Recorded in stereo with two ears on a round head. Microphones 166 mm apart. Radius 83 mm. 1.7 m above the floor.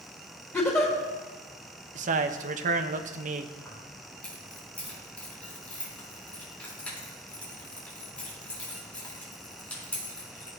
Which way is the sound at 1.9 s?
40° right (ahead or behind).